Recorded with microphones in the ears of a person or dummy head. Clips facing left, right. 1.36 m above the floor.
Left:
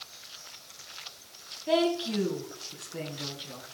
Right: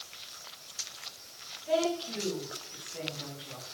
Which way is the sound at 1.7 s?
75° left (ahead or behind).